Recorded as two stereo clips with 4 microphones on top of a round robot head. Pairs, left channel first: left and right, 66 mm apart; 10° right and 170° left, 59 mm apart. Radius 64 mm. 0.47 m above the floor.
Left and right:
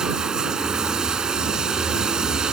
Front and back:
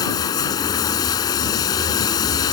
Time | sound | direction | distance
0.0 | running water | 10° right | ?